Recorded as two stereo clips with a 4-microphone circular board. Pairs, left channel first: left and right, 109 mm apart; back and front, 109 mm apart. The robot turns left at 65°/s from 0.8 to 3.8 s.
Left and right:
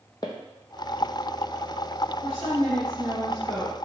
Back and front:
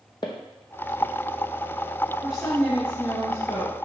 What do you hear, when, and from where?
0.2 s footsteps: 140° left, 0.7 m; by 1.1 s 120° left, 0.7 m
2.2 s a woman speaking: 80° right, 1.6 m; by 3.8 s straight behind, 1.6 m